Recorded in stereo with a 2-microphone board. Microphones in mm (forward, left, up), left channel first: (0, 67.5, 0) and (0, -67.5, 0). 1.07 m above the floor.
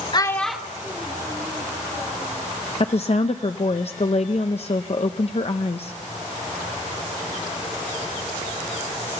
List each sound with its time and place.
0.1 s a child speaking: 35° left (ahead or behind), 0.7 m; by 2.3 s 30° right (ahead or behind), 3.5 m
2.8 s a woman speaking: 50° left (ahead or behind), 0.6 m